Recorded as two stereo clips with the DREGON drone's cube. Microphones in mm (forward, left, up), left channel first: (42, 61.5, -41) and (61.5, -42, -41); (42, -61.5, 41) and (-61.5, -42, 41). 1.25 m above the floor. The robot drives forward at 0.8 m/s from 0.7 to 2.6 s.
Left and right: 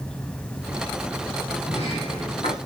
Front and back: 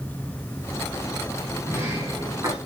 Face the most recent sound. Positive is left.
turn(degrees=115)